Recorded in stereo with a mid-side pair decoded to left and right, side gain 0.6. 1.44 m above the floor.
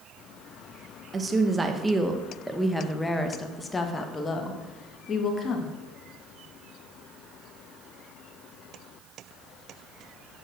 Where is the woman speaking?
25° right, 1.8 m; by 5.7 s 40° left, 2.5 m.